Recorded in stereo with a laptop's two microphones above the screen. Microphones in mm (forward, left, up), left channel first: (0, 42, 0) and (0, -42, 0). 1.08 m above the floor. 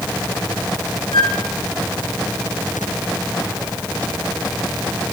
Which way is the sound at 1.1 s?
70° left (ahead or behind).